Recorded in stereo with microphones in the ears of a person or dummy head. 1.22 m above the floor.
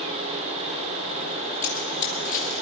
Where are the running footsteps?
45° left (ahead or behind), 2.5 m.